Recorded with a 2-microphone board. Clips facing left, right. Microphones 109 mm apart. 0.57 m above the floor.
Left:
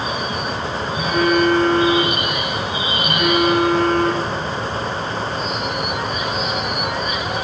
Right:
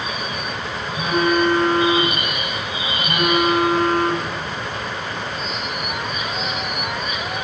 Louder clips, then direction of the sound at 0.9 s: Left 1 dB; 25° right (ahead or behind).